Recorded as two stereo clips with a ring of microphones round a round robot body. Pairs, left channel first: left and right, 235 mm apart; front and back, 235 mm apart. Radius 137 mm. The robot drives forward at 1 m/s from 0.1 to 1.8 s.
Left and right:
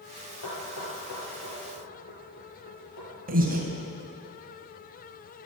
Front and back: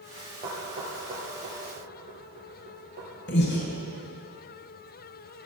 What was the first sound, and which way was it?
Knocking, 115° left.